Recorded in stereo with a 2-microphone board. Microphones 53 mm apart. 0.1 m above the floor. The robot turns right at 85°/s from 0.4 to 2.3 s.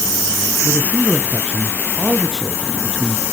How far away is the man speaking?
About 1.2 m.